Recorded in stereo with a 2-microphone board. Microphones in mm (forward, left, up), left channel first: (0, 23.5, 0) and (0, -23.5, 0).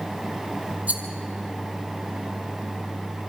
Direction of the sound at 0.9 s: 35° right (ahead or behind).